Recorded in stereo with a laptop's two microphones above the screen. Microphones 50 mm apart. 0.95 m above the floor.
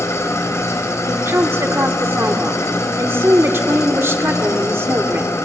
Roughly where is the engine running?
Left.